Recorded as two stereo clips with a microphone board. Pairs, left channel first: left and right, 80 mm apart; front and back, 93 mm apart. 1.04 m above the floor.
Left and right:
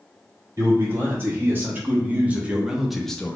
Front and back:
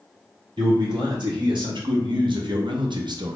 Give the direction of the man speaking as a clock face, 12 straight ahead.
5 o'clock.